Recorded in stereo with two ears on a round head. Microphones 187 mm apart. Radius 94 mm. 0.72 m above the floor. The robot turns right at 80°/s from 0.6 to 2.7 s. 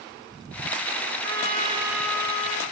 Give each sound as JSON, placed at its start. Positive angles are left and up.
{"t": 1.2, "sound": "a trumpet", "azimuth_deg": -65, "distance_m": 2.0}